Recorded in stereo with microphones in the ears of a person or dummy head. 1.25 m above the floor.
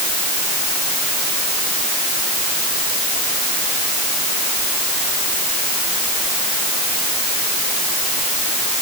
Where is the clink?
I don't hear a clink.